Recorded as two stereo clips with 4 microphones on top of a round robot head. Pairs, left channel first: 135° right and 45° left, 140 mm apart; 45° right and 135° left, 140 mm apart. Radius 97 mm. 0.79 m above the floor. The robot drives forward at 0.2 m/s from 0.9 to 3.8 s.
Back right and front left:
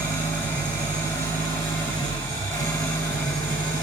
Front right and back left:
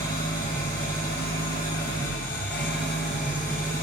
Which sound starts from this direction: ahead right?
An engine running, at 0.0 s.